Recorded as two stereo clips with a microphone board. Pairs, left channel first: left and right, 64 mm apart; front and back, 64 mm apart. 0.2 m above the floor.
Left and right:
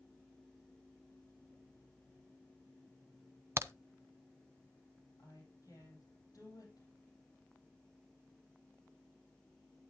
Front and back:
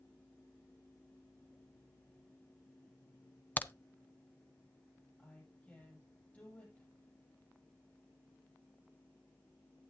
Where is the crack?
55° right, 0.7 m.